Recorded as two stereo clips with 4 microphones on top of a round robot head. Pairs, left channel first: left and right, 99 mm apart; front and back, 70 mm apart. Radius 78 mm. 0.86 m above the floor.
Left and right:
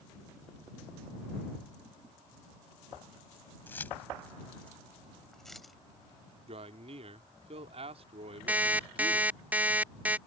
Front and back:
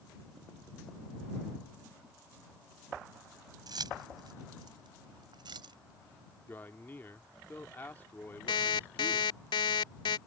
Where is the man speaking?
70° right.